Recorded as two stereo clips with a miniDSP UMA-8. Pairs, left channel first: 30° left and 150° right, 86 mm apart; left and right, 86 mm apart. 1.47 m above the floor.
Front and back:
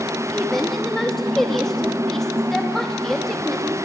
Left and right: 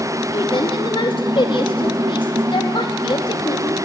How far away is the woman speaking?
About 2.5 m.